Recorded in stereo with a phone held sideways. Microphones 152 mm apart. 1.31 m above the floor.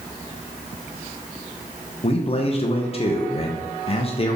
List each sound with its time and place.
2.0 s a man speaking: 40° left (ahead or behind), 0.5 m